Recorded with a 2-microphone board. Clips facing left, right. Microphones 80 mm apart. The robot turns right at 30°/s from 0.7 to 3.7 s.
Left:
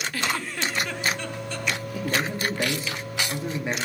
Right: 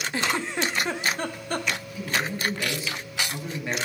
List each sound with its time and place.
0.1 s a giggle: 25° right (ahead or behind), 1.0 m; by 1.7 s 55° right (ahead or behind), 1.0 m
1.9 s a man speaking: 105° left, 2.5 m; by 3.8 s 160° left, 2.5 m